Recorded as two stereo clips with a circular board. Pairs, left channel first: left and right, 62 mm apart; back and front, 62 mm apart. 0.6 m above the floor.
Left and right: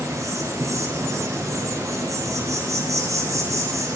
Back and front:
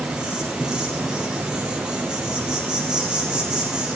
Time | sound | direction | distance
0.0 | an insect | 75° right | 8.5 m